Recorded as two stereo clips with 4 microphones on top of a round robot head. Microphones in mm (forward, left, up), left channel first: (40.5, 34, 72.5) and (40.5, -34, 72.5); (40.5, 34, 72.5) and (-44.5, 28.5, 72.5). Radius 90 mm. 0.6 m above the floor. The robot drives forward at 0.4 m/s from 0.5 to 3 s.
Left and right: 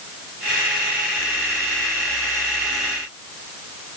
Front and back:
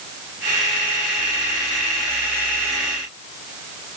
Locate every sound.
Only background noise.